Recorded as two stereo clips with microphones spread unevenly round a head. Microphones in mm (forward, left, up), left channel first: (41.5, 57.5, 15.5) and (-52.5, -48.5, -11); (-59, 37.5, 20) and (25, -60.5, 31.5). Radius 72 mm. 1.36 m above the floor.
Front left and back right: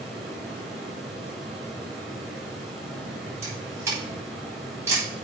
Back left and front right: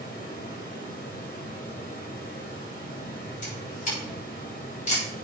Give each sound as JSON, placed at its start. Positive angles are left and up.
{"t": 0.0, "sound": "running water", "azimuth_deg": 140, "distance_m": 4.0}
{"t": 3.4, "sound": "a camera shutter", "azimuth_deg": 155, "distance_m": 7.5}